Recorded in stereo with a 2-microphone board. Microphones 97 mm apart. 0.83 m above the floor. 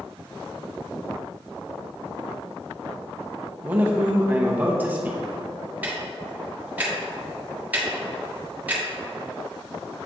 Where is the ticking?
15° right (ahead or behind), 1.5 m.